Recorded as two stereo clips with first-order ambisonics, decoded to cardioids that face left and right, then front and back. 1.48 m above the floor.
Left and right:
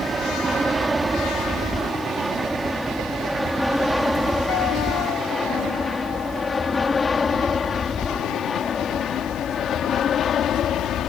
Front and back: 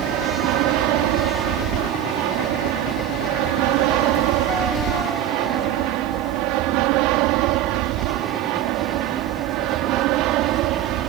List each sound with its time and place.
0.0 s an aircraft: 165° right; by 11.1 s 145° left